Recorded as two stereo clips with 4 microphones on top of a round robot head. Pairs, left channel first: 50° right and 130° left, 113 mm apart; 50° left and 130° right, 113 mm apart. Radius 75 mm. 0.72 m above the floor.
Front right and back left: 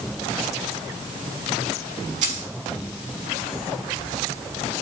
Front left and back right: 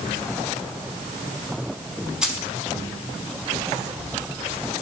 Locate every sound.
2.2 s keys jangling: 145° left, 4.5 m